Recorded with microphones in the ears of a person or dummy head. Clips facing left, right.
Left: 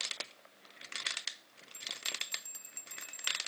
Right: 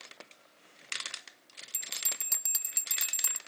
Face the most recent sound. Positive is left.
turn(degrees=-80)